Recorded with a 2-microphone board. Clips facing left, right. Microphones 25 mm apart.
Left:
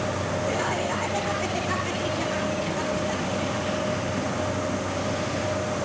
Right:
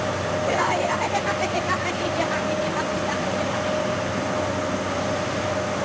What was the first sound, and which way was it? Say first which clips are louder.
Laughter: right 6 dB; 65° right (ahead or behind).